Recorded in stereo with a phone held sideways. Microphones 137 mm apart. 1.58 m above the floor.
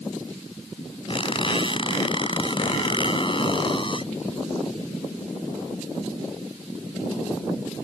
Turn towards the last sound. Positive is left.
turn(degrees=40)  # may be behind; listen again after turning